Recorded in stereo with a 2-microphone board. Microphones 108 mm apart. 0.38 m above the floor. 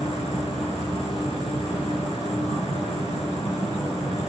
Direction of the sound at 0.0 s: 75° left (ahead or behind).